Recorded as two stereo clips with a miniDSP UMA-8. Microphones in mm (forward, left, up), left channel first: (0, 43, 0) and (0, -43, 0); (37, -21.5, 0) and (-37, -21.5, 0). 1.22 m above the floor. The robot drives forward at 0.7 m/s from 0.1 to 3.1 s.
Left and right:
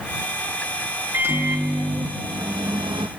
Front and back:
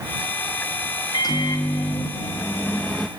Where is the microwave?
25° right, 1.5 m; by 3.1 s 90° right, 0.7 m.